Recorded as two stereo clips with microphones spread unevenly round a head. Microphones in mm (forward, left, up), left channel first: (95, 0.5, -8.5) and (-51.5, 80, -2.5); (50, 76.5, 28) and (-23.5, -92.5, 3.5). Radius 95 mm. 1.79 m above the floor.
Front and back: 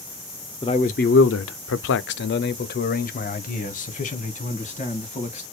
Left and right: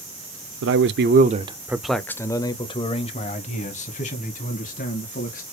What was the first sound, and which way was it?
A man speaking, 95° right.